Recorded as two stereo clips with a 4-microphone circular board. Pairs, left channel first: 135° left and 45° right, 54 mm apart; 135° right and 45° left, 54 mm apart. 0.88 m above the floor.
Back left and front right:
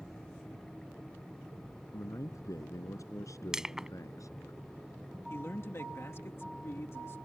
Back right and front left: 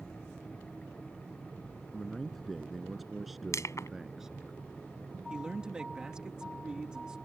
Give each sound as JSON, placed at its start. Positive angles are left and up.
{"t": 1.9, "sound": "a man speaking", "azimuth_deg": 140}
{"t": 3.5, "sound": "crushing", "azimuth_deg": -125}
{"t": 5.3, "sound": "a man speaking", "azimuth_deg": 115}